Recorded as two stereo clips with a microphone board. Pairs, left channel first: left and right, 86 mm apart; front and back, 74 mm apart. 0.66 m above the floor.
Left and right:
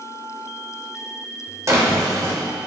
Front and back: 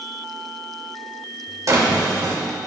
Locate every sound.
1.7 s a drawer: 140° right, 1.5 m